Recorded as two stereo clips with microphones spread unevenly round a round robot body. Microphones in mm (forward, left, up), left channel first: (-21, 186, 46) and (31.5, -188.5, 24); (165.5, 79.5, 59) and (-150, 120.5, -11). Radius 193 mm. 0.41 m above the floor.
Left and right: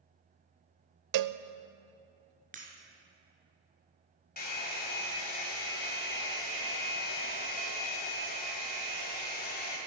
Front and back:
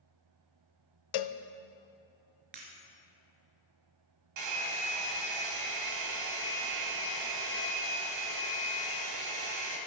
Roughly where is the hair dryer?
Behind.